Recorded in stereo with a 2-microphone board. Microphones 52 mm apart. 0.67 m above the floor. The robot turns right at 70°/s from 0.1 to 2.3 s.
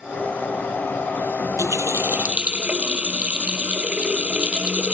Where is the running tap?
85° right; by 4.9 s 25° right.